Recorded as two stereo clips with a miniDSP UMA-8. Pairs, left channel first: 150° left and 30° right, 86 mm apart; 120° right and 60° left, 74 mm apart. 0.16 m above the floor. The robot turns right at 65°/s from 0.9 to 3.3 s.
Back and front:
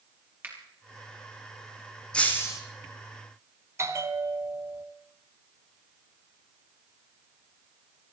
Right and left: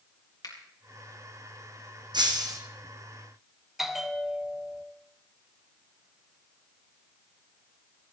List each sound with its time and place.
0.4 s a finger snap: 95° right, 3.5 m
2.1 s breaking glass: 70° left, 2 m; by 2.6 s 100° left, 2 m
3.8 s a bell: 20° right, 1.0 m